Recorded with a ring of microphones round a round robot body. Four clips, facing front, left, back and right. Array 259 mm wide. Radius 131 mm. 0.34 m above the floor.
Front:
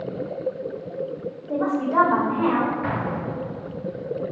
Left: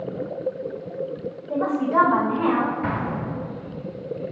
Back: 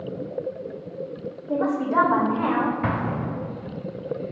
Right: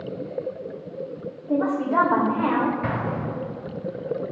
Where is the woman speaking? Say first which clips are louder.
Even, even; 125° right, 0.9 m.